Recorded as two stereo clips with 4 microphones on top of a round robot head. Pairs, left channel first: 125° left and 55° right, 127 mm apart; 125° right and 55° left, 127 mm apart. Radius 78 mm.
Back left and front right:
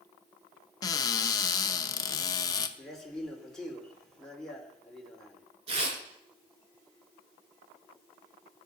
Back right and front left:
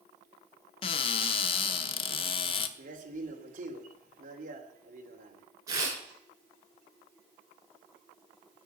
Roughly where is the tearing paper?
Ahead.